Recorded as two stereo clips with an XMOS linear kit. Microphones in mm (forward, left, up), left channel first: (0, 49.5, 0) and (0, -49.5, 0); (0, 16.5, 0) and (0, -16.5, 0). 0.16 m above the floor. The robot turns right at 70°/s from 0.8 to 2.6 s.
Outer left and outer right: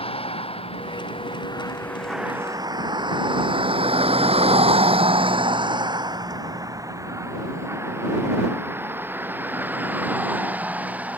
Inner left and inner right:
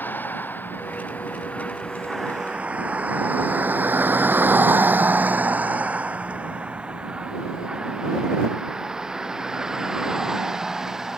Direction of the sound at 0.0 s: 75° left (ahead or behind).